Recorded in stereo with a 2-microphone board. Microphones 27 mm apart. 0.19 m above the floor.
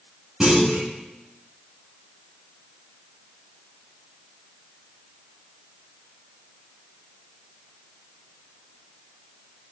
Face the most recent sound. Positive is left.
turn(degrees=-30)  # may be behind; listen again after turning